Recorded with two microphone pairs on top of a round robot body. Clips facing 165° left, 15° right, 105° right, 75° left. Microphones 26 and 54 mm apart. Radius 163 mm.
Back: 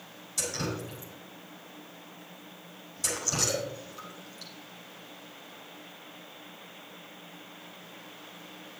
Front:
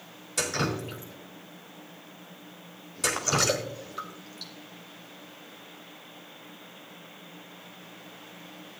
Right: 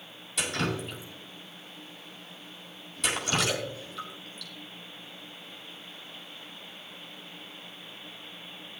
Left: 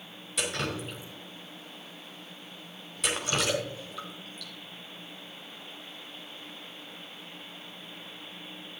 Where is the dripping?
15° right, 1.8 m.